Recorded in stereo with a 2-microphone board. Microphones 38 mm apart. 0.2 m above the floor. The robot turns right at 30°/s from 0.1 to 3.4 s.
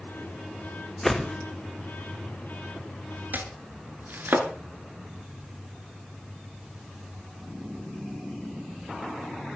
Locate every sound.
1.0 s a whoosh: 10° left (ahead or behind), 2.5 m; by 1.4 s centre (ahead or behind), 2.5 m
3.3 s chopping: 55° right (ahead or behind), 2.5 m